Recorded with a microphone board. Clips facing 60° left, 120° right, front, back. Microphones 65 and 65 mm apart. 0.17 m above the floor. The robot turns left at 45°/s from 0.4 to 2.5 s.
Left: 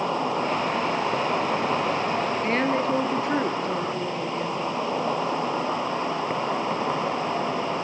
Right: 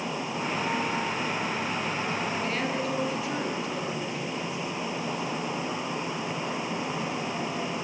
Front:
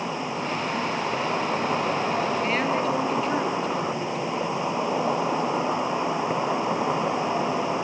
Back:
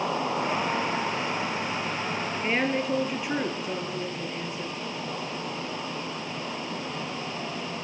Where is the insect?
100° left, 3 m; by 7.8 s 5° left, 3 m.